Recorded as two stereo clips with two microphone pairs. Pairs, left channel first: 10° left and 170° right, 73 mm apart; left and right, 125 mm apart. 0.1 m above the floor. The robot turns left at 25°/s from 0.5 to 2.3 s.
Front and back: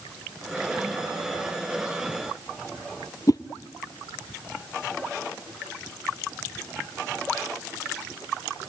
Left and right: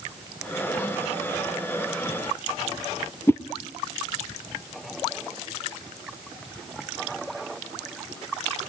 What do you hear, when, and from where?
3.3 s a whoosh: 25° left, 0.7 m